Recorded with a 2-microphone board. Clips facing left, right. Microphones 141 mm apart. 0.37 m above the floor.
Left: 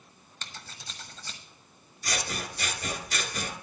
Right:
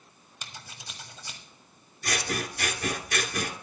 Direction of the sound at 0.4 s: 10° right (ahead or behind).